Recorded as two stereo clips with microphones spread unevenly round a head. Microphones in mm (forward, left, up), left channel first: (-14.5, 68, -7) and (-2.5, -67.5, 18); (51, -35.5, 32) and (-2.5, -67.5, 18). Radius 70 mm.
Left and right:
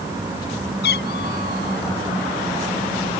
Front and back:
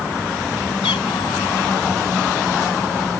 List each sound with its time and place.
0.8 s a cat meowing: 70° left